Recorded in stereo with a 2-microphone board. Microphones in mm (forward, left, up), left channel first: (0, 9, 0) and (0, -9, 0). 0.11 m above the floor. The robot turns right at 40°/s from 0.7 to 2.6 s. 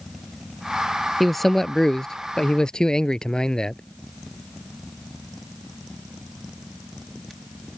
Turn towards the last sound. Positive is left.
turn(degrees=60)